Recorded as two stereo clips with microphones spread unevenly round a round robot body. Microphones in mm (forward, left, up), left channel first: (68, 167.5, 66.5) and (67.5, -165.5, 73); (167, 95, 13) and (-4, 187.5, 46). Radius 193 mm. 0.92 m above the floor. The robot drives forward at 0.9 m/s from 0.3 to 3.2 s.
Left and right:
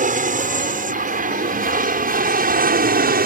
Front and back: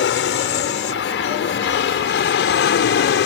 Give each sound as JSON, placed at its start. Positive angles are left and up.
{"t": 0.0, "sound": "an aircraft", "azimuth_deg": -25}